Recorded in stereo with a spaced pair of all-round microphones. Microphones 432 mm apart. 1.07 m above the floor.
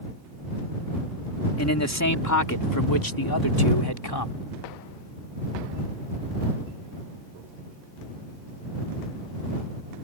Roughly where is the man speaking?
Left.